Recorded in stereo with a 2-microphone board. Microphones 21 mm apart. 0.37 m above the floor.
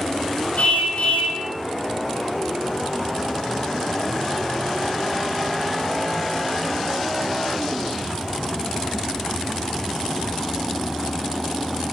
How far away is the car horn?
About 7.5 m.